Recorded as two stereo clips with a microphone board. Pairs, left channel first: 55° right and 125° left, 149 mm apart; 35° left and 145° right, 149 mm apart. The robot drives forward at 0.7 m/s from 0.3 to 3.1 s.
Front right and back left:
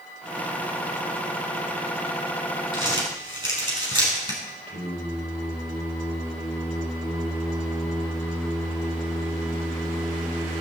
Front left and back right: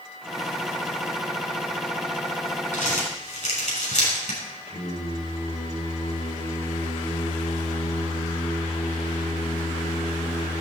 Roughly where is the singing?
Left.